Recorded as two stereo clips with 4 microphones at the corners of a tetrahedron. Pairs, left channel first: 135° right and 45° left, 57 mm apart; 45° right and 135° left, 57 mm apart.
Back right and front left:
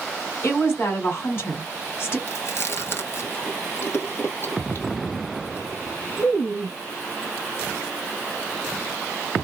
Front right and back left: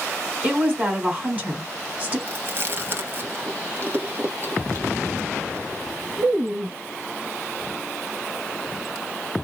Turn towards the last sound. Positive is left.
turn(degrees=180)